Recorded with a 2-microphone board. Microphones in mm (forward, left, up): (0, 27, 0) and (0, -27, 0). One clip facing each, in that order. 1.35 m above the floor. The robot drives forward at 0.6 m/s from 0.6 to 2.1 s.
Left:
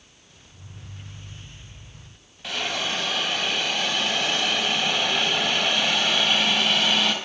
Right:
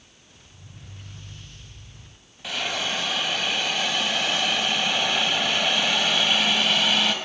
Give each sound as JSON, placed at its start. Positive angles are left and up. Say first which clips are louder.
{"t": 2.4, "sound": "a hiss", "louder": "even", "side_deg": 0, "distance_m": 4.0}